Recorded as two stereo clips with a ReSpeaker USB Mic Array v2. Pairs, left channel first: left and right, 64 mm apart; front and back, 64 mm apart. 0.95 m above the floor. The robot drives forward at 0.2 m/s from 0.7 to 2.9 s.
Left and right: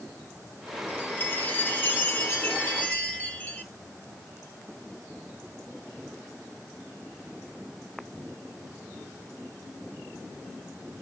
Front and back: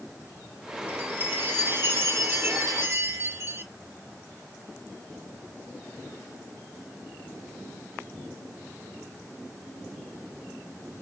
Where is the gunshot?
I don't hear a gunshot.